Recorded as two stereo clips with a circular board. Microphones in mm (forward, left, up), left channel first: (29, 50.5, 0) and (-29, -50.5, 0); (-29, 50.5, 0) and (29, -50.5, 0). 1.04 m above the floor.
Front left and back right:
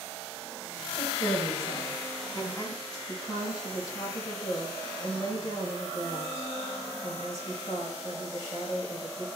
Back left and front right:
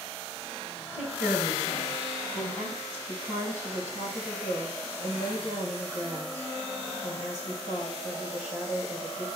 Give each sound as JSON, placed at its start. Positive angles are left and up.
{"t": 0.9, "sound": "a woman speaking", "azimuth_deg": 130, "distance_m": 4.5}
{"t": 3.1, "sound": "a woman speaking", "azimuth_deg": 115, "distance_m": 4.5}